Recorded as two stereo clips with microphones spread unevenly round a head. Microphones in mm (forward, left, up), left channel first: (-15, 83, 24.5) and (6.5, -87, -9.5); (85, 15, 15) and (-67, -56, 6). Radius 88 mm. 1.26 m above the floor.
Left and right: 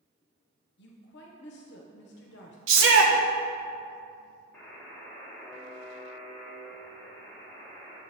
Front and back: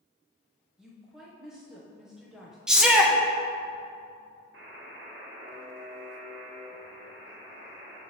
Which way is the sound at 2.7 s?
70° right.